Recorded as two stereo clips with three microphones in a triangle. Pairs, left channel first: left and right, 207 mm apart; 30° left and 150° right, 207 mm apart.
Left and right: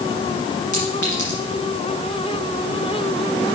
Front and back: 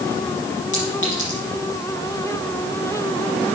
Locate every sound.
0.7 s a clink: 60° left, 4.5 m